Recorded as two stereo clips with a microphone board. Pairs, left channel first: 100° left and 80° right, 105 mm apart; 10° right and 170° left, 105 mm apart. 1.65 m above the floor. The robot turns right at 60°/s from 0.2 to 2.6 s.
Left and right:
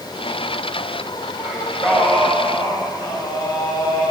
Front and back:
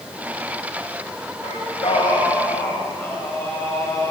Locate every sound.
1.4 s singing: 5° right, 7 m; by 4.1 s 65° left, 7 m